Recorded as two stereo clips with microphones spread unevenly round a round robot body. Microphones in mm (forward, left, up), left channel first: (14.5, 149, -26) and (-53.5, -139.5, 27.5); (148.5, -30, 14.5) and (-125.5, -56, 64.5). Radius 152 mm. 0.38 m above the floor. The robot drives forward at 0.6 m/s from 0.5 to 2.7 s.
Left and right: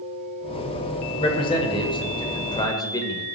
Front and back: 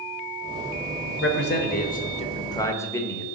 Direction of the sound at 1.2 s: 15° left.